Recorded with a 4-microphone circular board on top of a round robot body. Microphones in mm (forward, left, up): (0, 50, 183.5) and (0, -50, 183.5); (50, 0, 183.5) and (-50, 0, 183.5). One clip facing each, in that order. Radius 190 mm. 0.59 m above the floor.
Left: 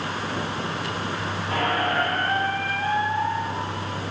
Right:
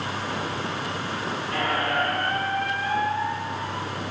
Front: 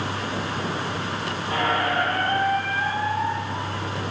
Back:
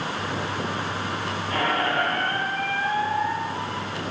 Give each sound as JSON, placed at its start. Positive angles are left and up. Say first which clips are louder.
{"t": 1.5, "sound": "a squeak", "louder": "left 2 dB, front 1 dB", "azimuth_deg": 65, "distance_m": 2.5}